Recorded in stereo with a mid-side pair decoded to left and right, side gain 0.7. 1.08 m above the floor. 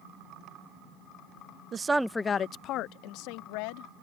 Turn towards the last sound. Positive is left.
turn(degrees=75)